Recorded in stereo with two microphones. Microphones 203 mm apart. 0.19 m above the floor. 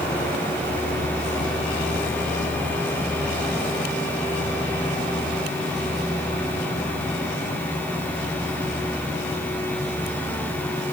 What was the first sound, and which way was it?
Only background noise.